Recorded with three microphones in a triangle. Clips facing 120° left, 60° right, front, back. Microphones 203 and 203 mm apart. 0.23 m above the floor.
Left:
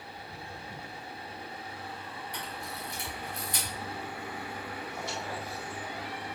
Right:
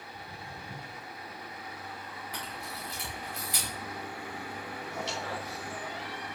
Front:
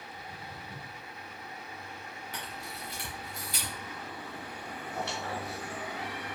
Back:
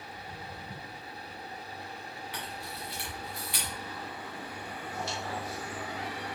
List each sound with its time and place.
0.1 s footsteps: 100° right, 2 m
2.3 s a camera shutter: 50° right, 4 m
4.9 s a squeak: 35° right, 2 m